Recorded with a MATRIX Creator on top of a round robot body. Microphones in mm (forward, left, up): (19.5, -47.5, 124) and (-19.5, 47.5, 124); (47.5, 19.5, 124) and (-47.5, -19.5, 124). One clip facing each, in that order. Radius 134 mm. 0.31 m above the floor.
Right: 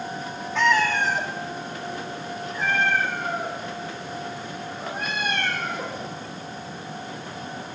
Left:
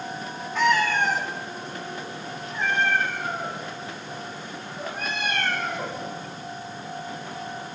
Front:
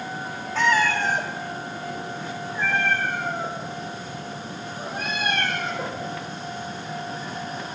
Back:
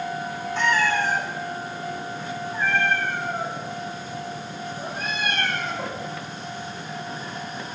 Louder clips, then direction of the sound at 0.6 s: Even, front 1 dB; 25° left.